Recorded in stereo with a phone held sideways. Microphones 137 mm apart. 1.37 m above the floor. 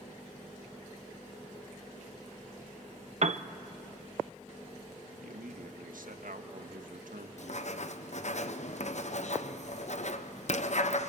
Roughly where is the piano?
Right.